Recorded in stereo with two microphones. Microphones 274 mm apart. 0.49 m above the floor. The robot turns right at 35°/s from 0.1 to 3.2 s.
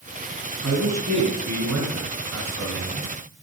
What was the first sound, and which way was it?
A man speaking, 120° right.